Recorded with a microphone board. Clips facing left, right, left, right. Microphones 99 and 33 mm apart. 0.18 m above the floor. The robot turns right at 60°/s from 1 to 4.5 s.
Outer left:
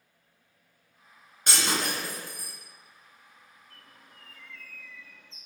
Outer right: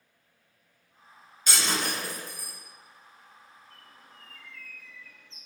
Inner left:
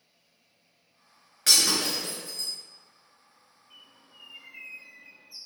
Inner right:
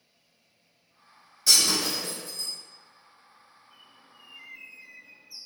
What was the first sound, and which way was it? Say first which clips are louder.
Breaking glass: outer left 1 dB, even; 60° left (ahead or behind).